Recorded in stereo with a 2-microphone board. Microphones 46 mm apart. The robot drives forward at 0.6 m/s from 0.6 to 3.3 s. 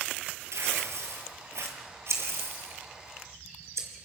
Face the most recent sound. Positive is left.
turn(degrees=-75)  # may be behind; listen again after turning